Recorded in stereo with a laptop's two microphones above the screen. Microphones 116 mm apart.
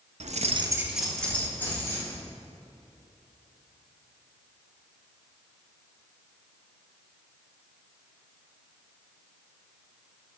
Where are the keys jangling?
85° right, 0.6 m; by 2.2 s 20° left (ahead or behind), 2 m.